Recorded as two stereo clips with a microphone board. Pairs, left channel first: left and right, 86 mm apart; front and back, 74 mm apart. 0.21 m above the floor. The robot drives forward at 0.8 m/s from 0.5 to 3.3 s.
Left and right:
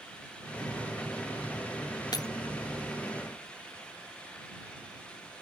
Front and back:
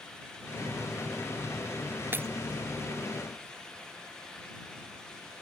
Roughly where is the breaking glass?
Behind left.